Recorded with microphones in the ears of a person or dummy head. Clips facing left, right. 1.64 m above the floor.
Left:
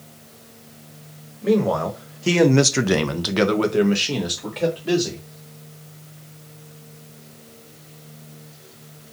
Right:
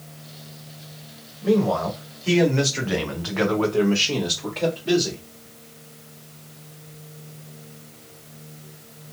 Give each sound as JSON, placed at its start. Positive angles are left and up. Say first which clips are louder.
{"t": 1.4, "sound": "a man speaking", "louder": "left 1 dB", "side_deg": 40, "distance_m": 1.0}